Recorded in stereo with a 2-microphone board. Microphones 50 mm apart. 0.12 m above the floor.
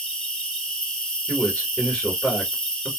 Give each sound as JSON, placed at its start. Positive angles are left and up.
{"t": 0.0, "sound": "an insect", "side_deg": 15, "distance_m": 1.6}
{"t": 1.3, "sound": "a man speaking", "side_deg": 20, "distance_m": 1.8}